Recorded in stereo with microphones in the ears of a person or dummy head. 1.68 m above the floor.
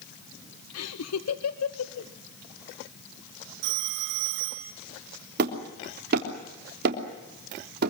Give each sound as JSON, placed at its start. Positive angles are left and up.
{"t": 0.7, "sound": "laughter", "side_deg": 80, "distance_m": 1.1}
{"t": 3.6, "sound": "a phone ringing", "side_deg": -60, "distance_m": 2.0}
{"t": 5.4, "sound": "hammering", "side_deg": -55, "distance_m": 3.5}